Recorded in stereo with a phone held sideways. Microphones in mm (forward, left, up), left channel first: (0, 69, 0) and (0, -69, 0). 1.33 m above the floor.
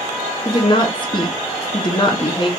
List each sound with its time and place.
0.5 s a woman speaking: 35° left (ahead or behind), 0.9 m